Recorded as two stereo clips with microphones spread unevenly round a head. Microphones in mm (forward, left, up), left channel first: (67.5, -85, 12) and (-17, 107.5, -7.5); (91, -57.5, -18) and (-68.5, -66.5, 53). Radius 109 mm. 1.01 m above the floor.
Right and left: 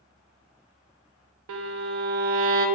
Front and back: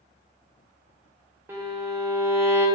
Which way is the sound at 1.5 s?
125° left.